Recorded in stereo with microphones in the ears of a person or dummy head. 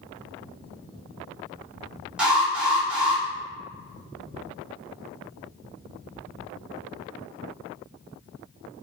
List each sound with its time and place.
2.2 s an alarm: centre (ahead or behind), 0.8 m